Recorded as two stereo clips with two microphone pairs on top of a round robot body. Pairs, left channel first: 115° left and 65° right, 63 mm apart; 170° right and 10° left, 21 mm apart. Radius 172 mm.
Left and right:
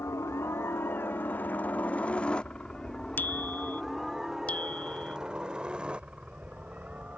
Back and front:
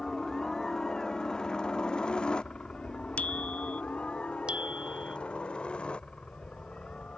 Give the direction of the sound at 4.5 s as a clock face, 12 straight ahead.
10 o'clock.